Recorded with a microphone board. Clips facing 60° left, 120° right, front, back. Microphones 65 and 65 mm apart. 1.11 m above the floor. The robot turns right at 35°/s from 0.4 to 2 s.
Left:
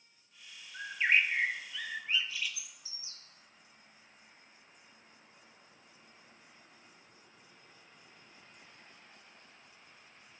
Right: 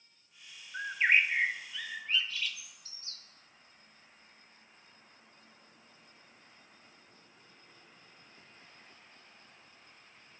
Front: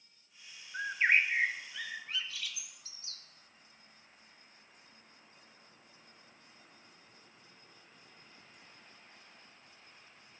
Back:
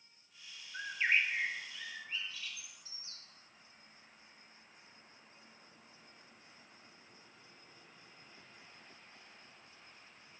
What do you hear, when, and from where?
0.7 s a bird: 65° right, 0.7 m; by 3.2 s 25° right, 0.7 m